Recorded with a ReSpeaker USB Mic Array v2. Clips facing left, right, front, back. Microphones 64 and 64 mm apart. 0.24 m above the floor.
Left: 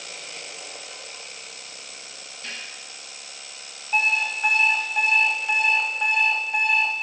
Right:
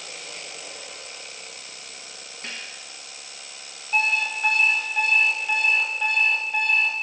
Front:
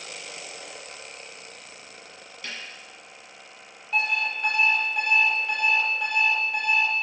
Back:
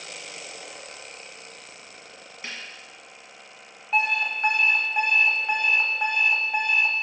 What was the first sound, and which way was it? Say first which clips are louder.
A snare drum: even, even; 120° right.